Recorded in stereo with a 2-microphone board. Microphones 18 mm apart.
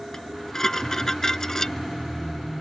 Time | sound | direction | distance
0.1 | dishes clattering | 25° left (ahead or behind) | ?